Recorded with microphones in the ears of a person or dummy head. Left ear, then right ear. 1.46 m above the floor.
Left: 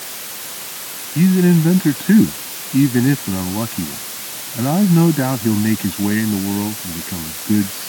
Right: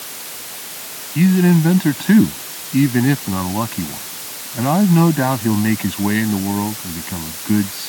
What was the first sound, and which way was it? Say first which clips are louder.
A man speaking: even; 25° right (ahead or behind).